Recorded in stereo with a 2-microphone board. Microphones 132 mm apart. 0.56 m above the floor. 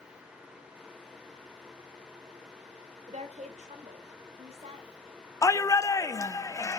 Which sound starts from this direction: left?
A shout, at 5.4 s.